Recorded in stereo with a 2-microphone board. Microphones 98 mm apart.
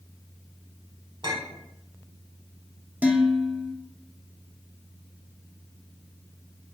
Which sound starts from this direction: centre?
Dishes clattering, at 3.0 s.